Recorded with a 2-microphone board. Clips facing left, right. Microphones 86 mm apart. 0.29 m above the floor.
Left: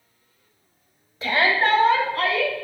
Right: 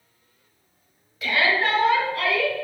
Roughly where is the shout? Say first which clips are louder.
Left 2 dB; left.